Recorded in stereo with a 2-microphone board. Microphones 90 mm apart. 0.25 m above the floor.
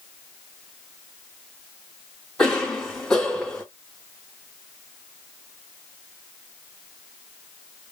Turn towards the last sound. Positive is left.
turn(degrees=0)  # may be behind; listen again after turning